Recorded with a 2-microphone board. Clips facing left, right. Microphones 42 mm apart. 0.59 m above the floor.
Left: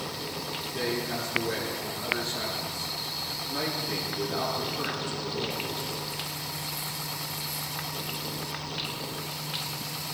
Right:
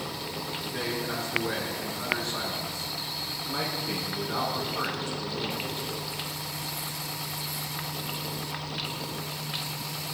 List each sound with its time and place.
0.6 s a man speaking: 65° right (ahead or behind), 8 m